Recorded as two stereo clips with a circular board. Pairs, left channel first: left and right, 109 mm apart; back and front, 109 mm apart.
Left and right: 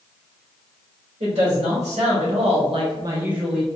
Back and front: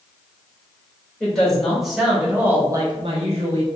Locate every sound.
1.2 s a woman speaking: 95° right, 1.8 m; by 3.7 s 10° left, 0.8 m